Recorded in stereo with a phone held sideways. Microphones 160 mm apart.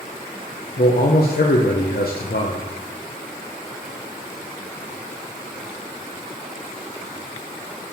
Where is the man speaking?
80° left, 0.7 m.